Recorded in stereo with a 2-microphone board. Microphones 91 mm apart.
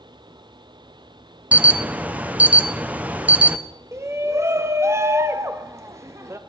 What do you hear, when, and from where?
1.5 s an alarm: 15° right (ahead or behind), 0.7 m
3.9 s a shout: 30° right (ahead or behind), 0.5 m